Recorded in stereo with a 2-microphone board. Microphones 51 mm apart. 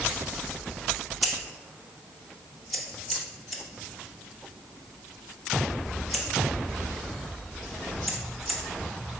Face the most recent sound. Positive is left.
turn(degrees=0)  # may be behind; listen again after turning